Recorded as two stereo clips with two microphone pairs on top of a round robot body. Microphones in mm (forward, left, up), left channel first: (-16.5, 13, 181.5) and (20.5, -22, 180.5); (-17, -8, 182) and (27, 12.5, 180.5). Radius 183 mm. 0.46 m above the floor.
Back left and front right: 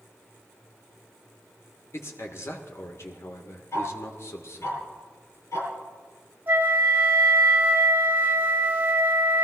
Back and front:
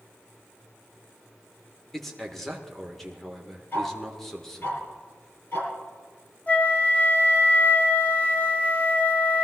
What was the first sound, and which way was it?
A man speaking, 120° left.